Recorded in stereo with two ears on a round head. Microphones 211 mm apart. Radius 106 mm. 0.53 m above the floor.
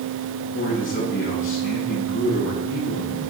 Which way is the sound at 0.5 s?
50° left (ahead or behind).